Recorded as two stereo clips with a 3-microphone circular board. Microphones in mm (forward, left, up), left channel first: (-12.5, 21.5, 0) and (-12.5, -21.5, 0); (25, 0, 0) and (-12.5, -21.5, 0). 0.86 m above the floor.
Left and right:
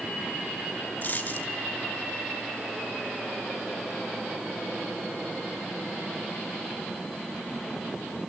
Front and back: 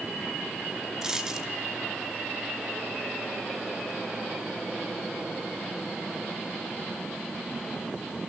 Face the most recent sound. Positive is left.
turn(degrees=135)